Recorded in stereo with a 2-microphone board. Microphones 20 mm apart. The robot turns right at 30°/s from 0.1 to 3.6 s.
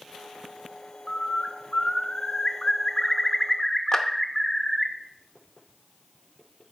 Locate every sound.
1.1 s a bird: 80° left, 0.7 m; by 4.9 s 155° left, 0.7 m
3.9 s a clap: 35° left (ahead or behind), 0.8 m